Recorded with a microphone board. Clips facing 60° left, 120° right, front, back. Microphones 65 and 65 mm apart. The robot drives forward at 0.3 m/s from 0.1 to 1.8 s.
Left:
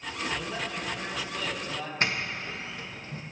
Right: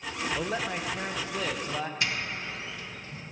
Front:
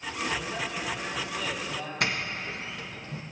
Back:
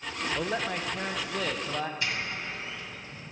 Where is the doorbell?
15° left, 1.6 m.